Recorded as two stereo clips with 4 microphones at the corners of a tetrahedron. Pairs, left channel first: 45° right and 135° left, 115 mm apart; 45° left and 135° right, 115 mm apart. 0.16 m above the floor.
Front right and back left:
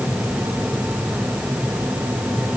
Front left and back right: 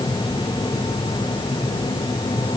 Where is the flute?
No flute in this recording.